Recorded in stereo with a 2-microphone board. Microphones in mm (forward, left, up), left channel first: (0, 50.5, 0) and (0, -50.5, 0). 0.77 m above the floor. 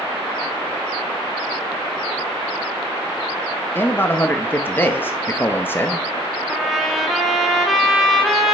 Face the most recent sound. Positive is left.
turn(degrees=0)  # may be behind; listen again after turning